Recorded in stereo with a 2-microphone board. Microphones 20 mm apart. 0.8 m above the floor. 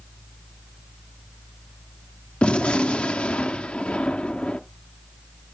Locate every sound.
2.4 s a gunshot: 70° left (ahead or behind), 0.7 m